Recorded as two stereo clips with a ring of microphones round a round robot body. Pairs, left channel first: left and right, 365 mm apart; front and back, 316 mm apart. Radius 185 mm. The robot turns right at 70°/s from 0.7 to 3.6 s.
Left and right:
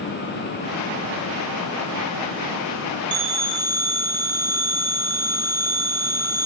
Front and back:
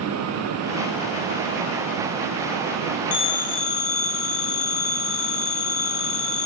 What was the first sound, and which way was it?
A phone ringing, 30° right.